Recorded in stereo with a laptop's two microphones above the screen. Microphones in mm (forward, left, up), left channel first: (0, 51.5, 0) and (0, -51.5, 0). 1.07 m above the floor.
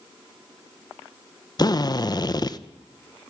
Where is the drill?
40° left (ahead or behind), 0.6 m.